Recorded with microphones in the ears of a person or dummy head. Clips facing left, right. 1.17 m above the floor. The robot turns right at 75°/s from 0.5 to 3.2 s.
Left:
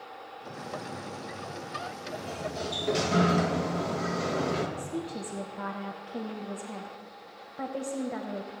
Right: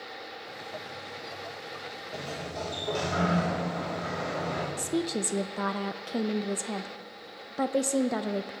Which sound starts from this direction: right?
A woman speaking, at 4.8 s.